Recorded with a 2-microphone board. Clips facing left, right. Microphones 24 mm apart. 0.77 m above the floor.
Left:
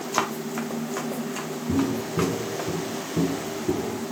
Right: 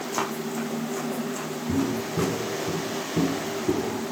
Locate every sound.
0.1 s running footsteps: 35° left (ahead or behind), 1.4 m; by 2.7 s 40° left (ahead or behind), 3.5 m
1.7 s footsteps: 20° left (ahead or behind), 1.0 m; by 4.0 s 20° right (ahead or behind), 1.9 m